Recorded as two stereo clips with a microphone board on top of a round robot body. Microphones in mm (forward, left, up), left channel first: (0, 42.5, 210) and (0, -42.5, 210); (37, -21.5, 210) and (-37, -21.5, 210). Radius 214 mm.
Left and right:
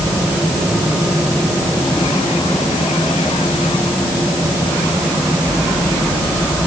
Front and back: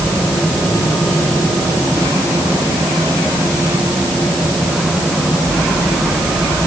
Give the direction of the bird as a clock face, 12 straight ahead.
I don't hear a bird.